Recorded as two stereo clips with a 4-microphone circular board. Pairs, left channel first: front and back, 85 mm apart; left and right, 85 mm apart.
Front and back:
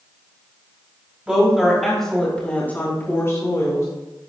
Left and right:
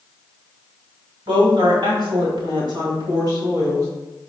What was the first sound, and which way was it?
A woman speaking, 105° right.